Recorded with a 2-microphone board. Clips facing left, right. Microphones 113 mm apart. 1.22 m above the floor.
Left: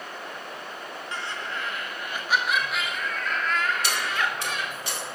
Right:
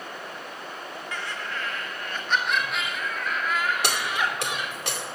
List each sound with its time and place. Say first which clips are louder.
1.1 s laughter: even; 30° left (ahead or behind), 1.4 m; by 4.7 s 15° right (ahead or behind), 2.5 m
3.8 s keys jangling: right 1 dB; 70° right (ahead or behind), 2.5 m